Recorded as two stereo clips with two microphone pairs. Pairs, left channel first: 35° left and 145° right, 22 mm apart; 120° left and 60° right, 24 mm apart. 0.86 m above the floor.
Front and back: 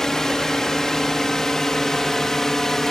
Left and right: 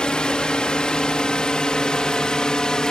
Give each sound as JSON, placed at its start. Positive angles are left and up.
{"t": 0.0, "sound": "a drone", "azimuth_deg": 90}